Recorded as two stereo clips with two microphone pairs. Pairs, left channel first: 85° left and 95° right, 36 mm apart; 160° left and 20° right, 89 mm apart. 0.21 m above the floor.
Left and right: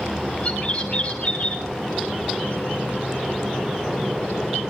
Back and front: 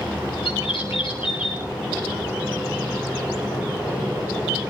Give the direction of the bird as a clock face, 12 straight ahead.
7 o'clock.